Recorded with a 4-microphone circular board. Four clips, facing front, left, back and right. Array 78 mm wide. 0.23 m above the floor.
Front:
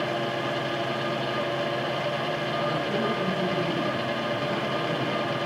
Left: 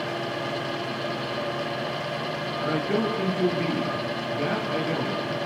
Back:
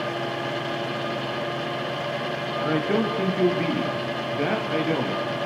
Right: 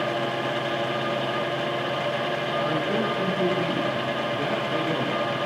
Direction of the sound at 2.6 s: 170° left.